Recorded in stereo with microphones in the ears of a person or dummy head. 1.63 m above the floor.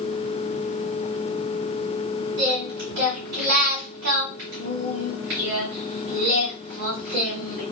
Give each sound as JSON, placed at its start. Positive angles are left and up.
{"t": 2.4, "sound": "singing", "side_deg": -40, "distance_m": 1.7}